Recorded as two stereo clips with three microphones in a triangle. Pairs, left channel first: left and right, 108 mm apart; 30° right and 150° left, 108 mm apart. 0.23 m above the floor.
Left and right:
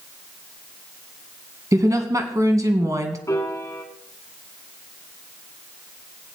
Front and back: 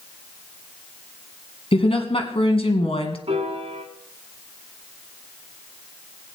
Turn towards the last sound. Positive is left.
turn(degrees=145)